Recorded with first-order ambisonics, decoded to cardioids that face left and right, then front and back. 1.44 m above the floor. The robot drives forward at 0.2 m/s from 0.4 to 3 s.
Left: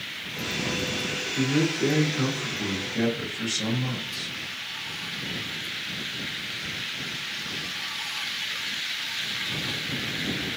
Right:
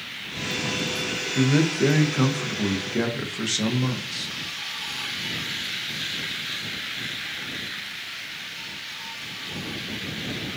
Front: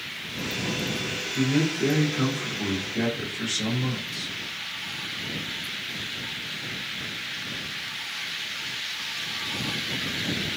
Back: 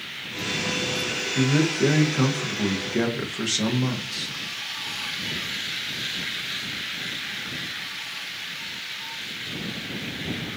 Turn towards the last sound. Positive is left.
turn(degrees=-140)